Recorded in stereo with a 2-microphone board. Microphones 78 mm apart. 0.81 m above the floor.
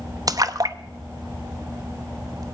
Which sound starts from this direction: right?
A splash, at 0.3 s.